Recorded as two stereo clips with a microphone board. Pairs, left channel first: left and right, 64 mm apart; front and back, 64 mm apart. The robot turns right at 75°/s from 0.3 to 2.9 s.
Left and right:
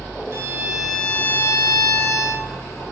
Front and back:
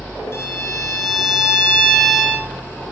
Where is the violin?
45° right, 0.6 m; by 2.5 s 120° left, 0.6 m.